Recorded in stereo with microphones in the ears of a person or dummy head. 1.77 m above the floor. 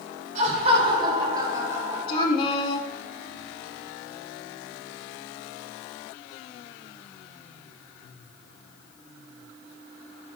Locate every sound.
0.3 s laughter: 45° right (ahead or behind), 4 m; by 2.3 s 10° right (ahead or behind), 4.5 m
2.1 s a woman speaking: 35° left (ahead or behind), 2.0 m